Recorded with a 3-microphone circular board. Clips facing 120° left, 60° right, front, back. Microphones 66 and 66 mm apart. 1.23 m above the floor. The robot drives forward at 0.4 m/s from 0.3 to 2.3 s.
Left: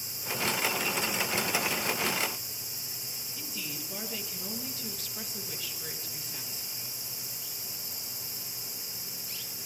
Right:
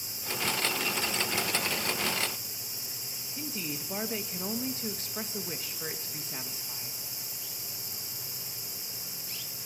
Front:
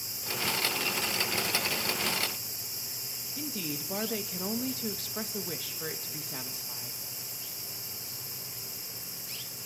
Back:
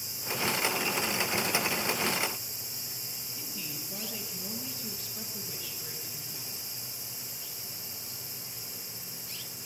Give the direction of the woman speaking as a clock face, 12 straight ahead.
12 o'clock.